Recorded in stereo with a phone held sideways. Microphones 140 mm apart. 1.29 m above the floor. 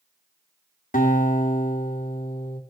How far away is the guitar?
About 1.9 m.